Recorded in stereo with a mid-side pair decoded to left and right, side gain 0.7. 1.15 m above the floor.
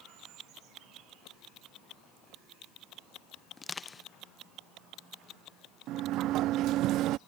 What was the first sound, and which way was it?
Crushing, 20° left.